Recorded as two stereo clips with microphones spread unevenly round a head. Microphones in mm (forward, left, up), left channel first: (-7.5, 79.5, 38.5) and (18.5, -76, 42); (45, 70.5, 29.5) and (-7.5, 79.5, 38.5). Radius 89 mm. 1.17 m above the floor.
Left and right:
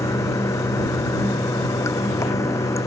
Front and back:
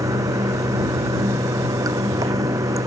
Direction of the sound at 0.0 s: 170° left.